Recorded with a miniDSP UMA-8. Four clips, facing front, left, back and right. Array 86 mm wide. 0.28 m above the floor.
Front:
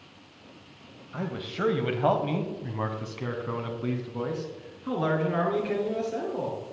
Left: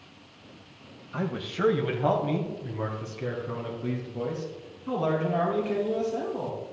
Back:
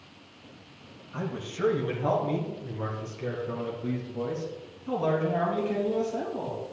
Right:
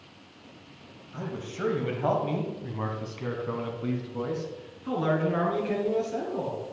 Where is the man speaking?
65° left, 1.1 m; by 6.6 s 35° right, 4.5 m.